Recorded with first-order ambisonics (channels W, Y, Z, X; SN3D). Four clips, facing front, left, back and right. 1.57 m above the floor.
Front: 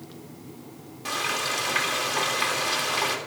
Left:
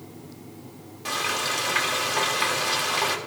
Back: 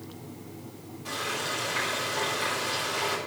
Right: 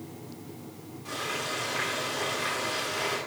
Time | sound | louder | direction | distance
1.1 | frying | left 6 dB, front 4 dB | 50° left | 3 m